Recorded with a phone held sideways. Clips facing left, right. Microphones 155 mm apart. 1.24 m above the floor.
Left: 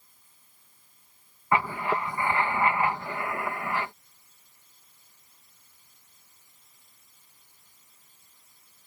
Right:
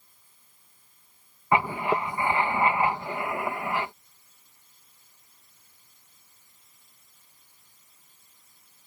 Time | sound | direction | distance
1.5 | writing | 20° right (ahead or behind) | ?